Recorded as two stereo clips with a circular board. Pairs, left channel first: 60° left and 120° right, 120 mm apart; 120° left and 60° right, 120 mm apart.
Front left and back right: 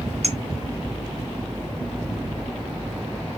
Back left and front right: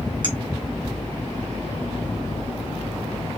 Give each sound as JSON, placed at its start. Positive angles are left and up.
{"t": 0.2, "sound": "a clink", "azimuth_deg": -100, "distance_m": 2.5}